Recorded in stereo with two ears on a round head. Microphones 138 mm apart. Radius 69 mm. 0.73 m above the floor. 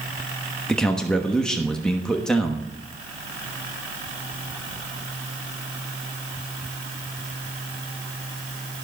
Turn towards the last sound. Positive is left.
turn(degrees=5)  # may be behind; listen again after turning